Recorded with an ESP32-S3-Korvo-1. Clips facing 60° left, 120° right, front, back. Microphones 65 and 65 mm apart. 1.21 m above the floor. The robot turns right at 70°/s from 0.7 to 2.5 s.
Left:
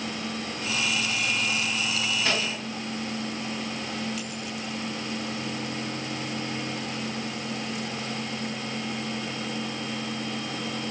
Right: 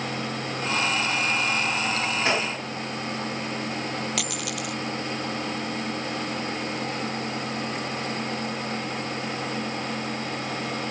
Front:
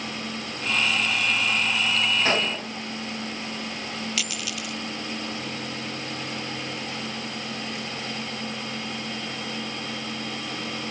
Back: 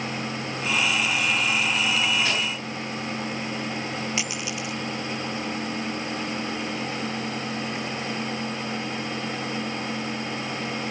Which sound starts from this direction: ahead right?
A gunshot, at 2.2 s.